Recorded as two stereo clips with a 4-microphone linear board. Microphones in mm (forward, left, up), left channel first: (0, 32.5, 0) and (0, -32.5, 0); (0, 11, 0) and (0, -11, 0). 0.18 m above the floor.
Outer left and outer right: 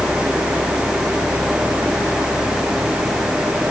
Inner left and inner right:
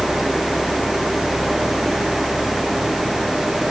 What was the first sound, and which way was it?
Only background noise.